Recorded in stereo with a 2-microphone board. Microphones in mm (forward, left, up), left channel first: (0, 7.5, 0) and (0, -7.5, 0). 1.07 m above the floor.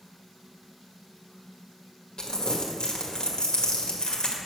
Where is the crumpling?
70° left (ahead or behind), 1.7 m.